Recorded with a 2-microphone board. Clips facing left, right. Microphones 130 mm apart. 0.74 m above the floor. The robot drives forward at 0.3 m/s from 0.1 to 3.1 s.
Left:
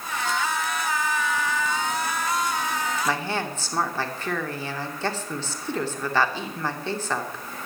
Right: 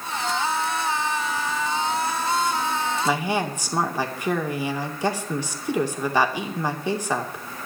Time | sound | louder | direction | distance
3.0 | a woman speaking | right 3 dB | 10° right (ahead or behind) | 2.5 m